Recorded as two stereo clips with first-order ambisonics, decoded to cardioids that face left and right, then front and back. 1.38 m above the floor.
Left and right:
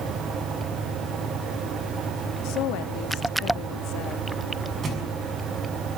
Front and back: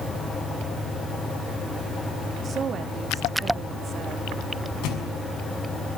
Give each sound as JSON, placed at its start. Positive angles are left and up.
{"t": 2.4, "sound": "a woman speaking", "azimuth_deg": 115, "distance_m": 2.5}
{"t": 4.8, "sound": "a thud", "azimuth_deg": -25, "distance_m": 6.0}